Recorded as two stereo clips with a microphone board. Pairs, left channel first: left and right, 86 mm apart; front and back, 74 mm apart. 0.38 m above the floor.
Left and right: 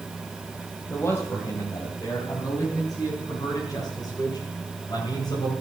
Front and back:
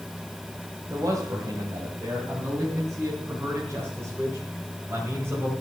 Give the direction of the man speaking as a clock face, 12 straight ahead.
7 o'clock.